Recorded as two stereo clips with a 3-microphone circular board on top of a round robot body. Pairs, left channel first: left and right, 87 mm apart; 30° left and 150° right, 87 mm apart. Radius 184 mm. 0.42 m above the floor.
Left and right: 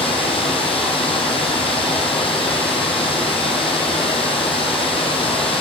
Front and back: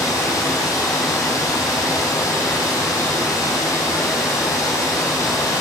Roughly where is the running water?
Left.